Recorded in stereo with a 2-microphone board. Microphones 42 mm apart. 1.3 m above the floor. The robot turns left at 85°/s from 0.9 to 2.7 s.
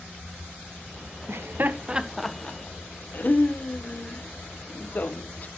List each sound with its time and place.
1.3 s laughter: 70° right (ahead or behind), 0.8 m; by 5.5 s 40° left (ahead or behind), 0.8 m